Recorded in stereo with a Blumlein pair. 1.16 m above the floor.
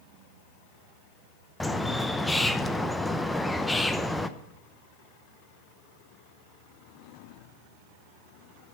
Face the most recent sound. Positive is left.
turn(degrees=5)